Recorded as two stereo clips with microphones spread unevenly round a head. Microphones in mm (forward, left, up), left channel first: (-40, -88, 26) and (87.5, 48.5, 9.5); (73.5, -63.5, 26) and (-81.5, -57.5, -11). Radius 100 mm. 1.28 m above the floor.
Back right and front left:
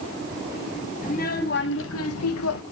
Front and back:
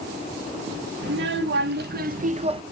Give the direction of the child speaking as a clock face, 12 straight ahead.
6 o'clock.